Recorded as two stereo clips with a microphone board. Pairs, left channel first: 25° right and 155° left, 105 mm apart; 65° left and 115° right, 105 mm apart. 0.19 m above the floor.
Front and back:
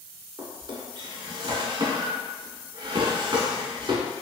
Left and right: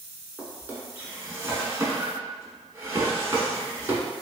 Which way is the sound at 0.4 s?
175° right.